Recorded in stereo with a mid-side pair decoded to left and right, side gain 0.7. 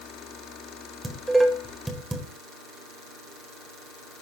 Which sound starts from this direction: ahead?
Dishes clattering, at 1.0 s.